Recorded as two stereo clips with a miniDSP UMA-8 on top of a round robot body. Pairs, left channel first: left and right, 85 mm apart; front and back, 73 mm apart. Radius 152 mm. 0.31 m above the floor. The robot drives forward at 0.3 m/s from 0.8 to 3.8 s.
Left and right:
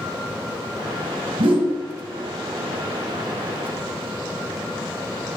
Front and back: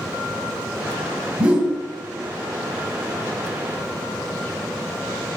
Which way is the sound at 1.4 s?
110° right.